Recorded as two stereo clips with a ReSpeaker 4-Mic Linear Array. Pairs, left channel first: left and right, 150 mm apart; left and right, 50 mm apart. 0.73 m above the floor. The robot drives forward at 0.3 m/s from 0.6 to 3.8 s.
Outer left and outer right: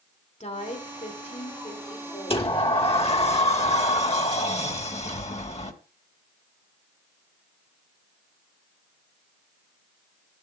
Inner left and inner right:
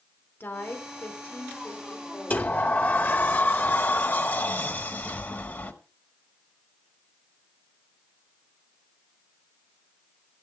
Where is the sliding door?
35° left (ahead or behind), 1.4 m; by 5.7 s 45° left (ahead or behind), 1.2 m.